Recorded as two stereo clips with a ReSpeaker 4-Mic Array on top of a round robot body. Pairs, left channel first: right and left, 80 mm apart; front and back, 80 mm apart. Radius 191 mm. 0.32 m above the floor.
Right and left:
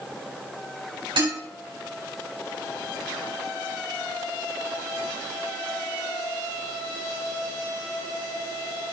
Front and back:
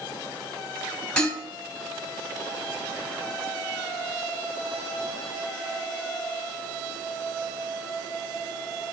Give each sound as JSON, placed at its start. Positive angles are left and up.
{"t": 1.2, "sound": "dishes clattering", "azimuth_deg": 80, "distance_m": 3.5}